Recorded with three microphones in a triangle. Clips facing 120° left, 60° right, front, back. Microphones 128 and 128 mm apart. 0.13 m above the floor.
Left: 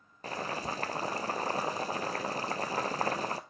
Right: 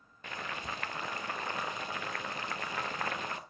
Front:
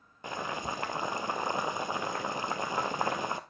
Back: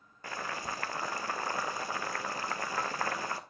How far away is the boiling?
About 0.8 m.